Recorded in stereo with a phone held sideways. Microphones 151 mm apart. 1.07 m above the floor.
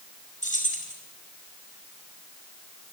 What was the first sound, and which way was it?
Keys jangling, 55° left (ahead or behind).